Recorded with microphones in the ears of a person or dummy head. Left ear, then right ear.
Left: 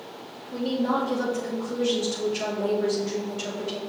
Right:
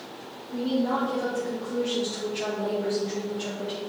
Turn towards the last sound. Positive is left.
turn(degrees=80)